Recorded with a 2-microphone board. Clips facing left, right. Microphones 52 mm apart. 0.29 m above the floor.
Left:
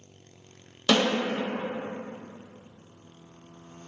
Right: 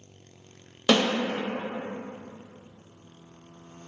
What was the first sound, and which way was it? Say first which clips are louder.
A snare drum: right 1 dB; 20° right (ahead or behind).